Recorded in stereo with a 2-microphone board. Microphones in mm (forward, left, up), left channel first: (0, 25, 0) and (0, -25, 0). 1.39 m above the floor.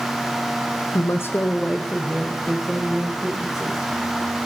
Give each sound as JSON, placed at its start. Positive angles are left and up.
{"t": 0.9, "sound": "a woman speaking", "side_deg": 75, "distance_m": 0.5}